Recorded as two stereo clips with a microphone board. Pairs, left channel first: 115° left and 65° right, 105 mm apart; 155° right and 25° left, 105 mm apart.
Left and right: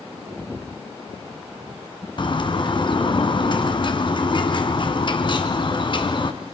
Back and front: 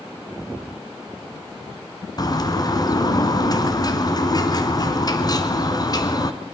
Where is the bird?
150° left, 2.0 m.